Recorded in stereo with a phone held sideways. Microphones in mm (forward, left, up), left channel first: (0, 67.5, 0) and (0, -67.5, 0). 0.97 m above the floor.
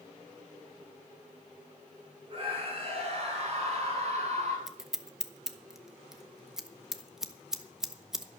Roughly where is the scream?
Right.